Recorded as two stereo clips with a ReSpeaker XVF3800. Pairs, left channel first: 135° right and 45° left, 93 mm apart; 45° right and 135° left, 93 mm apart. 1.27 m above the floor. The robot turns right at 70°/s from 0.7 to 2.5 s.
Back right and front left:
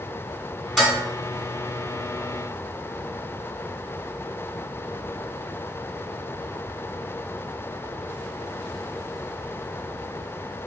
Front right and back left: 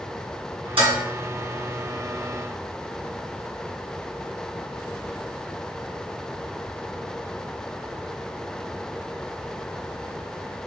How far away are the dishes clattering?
About 1.4 m.